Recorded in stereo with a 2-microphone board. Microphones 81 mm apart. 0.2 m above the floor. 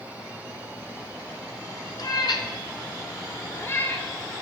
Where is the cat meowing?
50° left (ahead or behind), 0.9 m; by 4.4 s 20° left (ahead or behind), 1.7 m.